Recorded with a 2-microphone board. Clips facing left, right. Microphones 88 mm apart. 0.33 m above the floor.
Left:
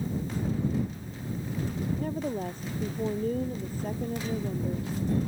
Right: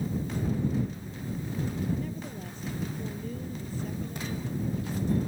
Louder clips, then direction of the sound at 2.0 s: Left 6 dB; 50° left (ahead or behind).